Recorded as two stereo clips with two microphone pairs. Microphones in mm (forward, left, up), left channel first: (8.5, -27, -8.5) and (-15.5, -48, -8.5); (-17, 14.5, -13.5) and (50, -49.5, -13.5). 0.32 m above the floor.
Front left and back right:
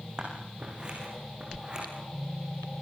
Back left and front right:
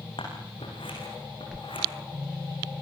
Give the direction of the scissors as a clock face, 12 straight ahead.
7 o'clock.